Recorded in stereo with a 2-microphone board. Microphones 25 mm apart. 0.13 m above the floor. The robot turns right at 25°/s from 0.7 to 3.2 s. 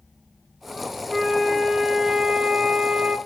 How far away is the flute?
About 1.7 m.